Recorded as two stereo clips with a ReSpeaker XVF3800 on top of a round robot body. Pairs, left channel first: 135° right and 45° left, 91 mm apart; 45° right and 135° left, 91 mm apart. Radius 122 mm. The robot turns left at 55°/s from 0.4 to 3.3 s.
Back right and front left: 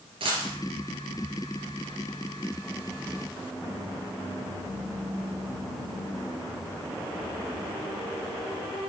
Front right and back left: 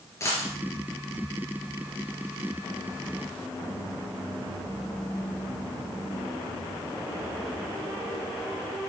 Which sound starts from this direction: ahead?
A dropped coin, at 0.2 s.